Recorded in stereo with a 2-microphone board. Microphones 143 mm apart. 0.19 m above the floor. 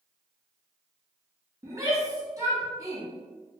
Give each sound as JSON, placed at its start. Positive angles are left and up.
{"t": 1.6, "sound": "a shout", "side_deg": -25, "distance_m": 1.4}